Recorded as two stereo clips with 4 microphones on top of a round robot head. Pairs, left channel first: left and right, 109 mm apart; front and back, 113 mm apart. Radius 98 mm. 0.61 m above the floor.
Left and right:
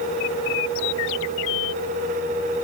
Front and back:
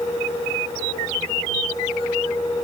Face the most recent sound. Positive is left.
No sound to turn to.